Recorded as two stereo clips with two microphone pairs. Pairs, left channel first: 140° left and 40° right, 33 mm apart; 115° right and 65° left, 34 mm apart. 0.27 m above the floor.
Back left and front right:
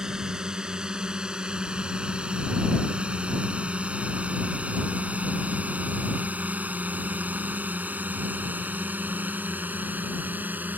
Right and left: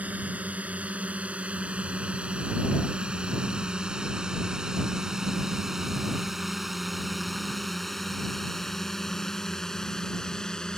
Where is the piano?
No piano in this recording.